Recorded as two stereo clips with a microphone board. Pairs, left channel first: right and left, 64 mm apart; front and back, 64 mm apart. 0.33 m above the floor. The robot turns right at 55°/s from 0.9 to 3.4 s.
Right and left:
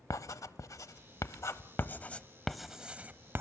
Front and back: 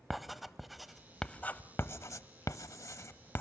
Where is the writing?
90° right, 0.8 m; by 3.4 s 45° left, 0.8 m.